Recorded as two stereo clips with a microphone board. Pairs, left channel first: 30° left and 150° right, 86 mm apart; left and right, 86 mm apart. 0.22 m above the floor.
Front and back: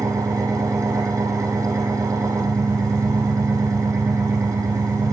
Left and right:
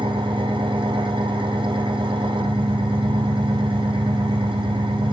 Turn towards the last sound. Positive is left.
turn(degrees=-100)